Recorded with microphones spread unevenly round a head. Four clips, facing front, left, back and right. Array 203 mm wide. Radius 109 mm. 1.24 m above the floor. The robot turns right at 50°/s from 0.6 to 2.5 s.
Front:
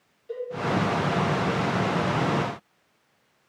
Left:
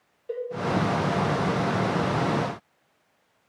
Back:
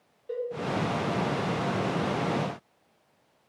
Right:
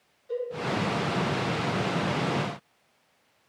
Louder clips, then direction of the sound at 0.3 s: Even, back 1 dB; 100° left.